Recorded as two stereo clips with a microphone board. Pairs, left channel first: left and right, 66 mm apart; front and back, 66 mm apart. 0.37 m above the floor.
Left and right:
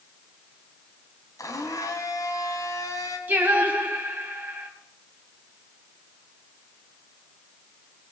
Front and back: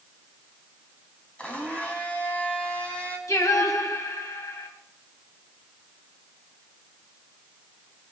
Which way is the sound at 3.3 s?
30° right.